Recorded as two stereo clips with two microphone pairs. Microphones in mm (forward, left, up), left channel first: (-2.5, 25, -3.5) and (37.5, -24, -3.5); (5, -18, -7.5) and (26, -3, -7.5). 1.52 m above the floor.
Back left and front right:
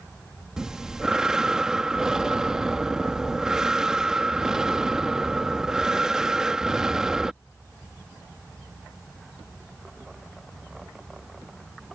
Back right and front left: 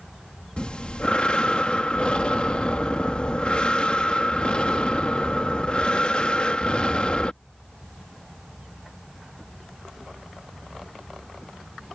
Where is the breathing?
125° right.